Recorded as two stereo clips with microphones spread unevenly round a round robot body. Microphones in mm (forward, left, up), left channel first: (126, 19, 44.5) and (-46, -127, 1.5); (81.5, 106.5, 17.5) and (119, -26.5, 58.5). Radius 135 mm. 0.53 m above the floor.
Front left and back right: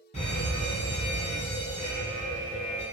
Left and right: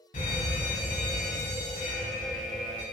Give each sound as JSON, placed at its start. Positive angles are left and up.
{"t": 0.1, "sound": "a fire alarm", "azimuth_deg": 110, "distance_m": 6.0}